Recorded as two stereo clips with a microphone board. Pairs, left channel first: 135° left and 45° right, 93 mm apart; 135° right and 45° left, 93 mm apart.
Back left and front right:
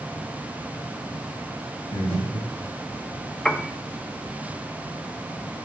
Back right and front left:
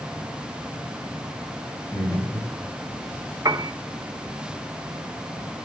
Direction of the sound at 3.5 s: 55° left.